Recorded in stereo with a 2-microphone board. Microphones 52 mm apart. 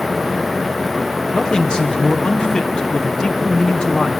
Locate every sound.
1.3 s a man speaking: 15° left (ahead or behind), 0.7 m